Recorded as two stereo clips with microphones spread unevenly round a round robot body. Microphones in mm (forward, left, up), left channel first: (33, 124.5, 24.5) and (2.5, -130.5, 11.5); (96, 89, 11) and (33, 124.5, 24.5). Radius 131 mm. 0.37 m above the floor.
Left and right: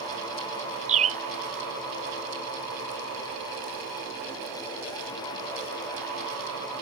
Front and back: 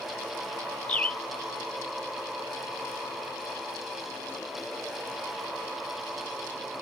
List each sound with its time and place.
0.9 s a bird: 70° right